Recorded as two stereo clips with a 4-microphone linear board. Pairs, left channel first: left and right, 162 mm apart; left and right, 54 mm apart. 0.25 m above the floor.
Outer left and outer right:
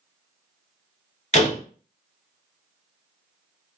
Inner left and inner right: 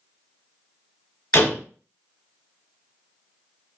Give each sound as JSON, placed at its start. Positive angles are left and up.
{"t": 1.3, "sound": "a door slam", "side_deg": 45, "distance_m": 0.9}